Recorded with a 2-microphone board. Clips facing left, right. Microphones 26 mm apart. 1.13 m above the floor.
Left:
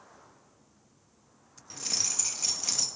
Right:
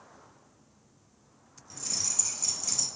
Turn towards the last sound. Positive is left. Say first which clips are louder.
# left 3 dB
turn(degrees=35)  # may be behind; listen again after turning